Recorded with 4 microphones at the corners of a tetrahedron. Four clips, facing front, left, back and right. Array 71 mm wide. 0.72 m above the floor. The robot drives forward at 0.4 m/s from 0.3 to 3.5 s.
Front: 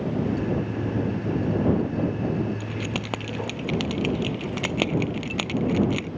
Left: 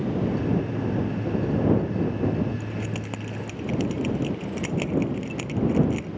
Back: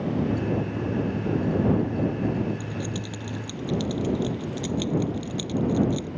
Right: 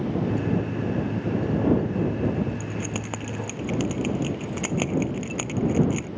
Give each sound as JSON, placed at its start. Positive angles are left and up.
{"t": 2.6, "sound": "keys jangling", "azimuth_deg": -20}